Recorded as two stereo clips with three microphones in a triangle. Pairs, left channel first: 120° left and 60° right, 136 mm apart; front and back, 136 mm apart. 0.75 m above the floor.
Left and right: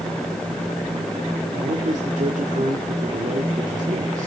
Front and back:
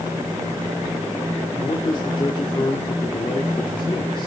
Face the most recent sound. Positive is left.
turn(degrees=-50)